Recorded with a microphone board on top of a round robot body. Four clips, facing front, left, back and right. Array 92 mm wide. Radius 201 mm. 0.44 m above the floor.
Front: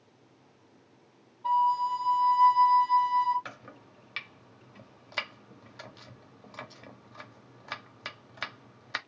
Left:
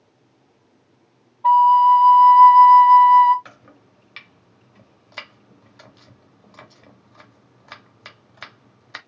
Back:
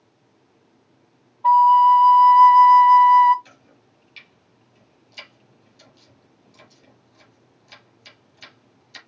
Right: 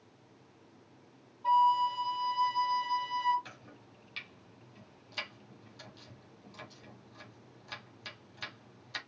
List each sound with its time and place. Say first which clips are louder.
1.4 s a flute: left 14 dB, back 13 dB; 130° left, 0.6 m
3.5 s chopping: left 5 dB, front 7 dB; 30° left, 0.7 m